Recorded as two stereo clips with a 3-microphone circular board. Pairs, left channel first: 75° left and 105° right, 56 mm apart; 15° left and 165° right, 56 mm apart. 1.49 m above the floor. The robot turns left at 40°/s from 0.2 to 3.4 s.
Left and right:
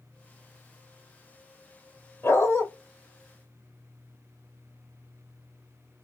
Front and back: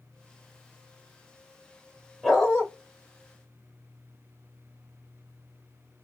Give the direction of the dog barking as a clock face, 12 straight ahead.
9 o'clock.